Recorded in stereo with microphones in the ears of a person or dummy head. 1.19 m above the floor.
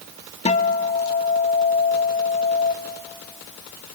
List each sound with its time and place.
0.5 s a guitar: 30° left (ahead or behind), 0.8 m